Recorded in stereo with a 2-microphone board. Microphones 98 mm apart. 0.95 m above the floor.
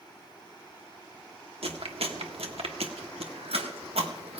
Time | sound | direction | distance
1.6 | chewing | 85° right | 1.3 m